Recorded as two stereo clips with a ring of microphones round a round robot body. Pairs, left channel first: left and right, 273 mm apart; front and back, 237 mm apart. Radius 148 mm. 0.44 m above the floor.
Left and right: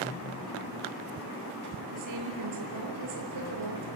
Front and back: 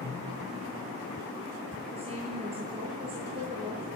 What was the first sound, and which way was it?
A woman speaking, 110° right.